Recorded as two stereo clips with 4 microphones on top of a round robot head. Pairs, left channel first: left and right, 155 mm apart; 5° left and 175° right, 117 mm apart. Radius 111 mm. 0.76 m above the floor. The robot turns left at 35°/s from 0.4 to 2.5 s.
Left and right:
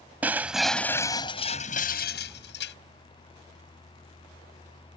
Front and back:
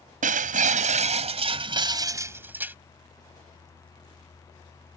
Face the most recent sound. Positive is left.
turn(degrees=115)